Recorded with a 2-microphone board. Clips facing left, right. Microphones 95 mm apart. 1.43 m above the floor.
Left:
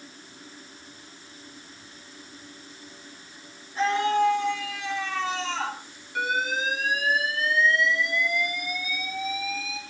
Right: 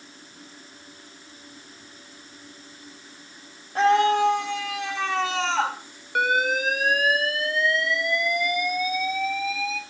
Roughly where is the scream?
Right.